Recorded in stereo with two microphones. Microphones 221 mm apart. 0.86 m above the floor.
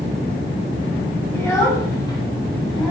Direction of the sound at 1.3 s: 15° left (ahead or behind).